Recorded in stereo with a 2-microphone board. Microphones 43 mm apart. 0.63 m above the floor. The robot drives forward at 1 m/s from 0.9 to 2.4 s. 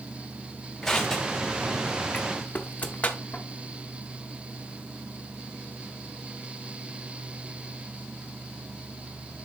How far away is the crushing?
About 2.5 m.